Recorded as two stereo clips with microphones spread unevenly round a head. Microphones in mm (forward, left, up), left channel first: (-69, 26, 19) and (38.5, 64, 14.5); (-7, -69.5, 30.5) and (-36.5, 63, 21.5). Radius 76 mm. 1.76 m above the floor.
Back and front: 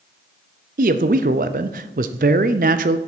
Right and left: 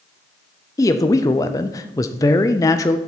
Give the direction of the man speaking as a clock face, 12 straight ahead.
12 o'clock.